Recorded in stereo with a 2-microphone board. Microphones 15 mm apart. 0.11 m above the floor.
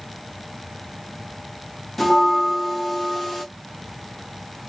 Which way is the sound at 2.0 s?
15° left (ahead or behind).